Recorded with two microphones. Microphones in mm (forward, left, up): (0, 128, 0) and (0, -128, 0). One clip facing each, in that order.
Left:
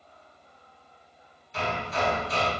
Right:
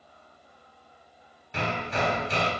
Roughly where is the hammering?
Right.